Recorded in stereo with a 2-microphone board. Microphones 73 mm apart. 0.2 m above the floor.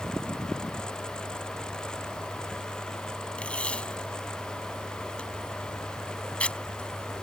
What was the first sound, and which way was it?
Tape being pulled, 15° left (ahead or behind).